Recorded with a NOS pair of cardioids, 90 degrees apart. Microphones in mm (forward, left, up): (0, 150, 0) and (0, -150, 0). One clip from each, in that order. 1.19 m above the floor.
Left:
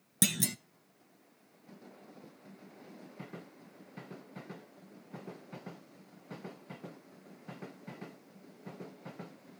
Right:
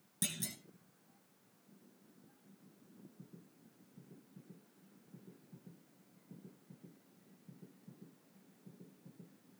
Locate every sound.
0.2 s a clunk: 60° left, 0.8 m